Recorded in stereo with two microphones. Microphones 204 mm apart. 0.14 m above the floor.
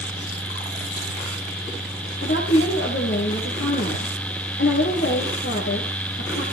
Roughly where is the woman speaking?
Left.